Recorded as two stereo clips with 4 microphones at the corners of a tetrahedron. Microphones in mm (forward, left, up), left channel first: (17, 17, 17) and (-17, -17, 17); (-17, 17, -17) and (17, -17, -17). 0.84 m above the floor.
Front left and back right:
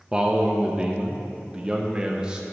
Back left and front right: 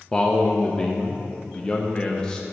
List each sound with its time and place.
0.1 s a man speaking: 175° left, 0.6 m